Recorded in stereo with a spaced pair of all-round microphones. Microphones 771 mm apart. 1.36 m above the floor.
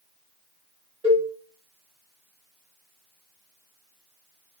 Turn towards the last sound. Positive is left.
turn(degrees=-5)  # may be behind; listen again after turning